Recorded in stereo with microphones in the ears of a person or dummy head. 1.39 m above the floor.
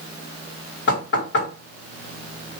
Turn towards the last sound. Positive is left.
turn(degrees=60)  # may be behind; listen again after turning